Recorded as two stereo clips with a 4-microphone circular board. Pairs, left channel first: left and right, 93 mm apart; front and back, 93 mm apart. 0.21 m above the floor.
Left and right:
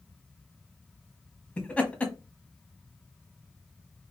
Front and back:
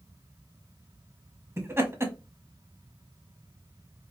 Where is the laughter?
150° left, 1.2 m.